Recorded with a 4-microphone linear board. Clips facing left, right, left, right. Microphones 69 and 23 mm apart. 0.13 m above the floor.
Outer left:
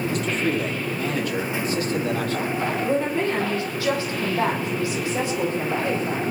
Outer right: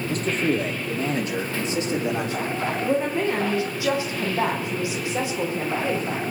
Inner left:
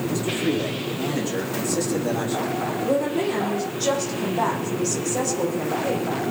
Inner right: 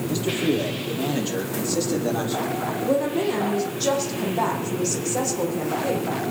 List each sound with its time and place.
0.1 s a man speaking: 40° right (ahead or behind), 3.5 m; by 2.7 s 15° right (ahead or behind), 4 m
2.8 s a woman speaking: 20° right (ahead or behind), 6 m